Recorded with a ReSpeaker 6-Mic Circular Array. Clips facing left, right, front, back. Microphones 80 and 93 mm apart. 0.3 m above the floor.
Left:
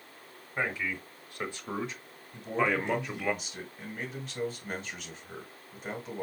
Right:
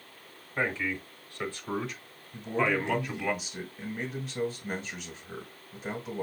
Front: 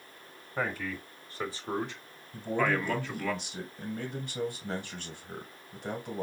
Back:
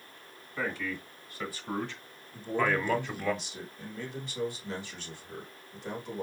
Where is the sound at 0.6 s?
15° left, 1.6 m; by 3.3 s 140° left, 1.3 m.